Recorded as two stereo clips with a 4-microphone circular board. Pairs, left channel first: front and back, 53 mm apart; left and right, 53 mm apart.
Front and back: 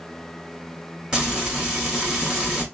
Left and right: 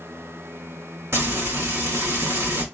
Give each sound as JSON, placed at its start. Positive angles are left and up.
{"t": 1.1, "sound": "frying", "azimuth_deg": -100, "distance_m": 2.5}